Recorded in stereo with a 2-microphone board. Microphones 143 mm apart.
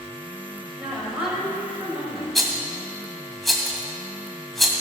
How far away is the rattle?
About 1.7 m.